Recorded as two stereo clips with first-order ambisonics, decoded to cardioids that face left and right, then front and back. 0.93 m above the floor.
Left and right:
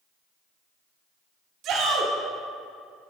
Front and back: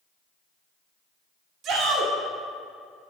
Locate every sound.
1.6 s a shout: 135° right, 2 m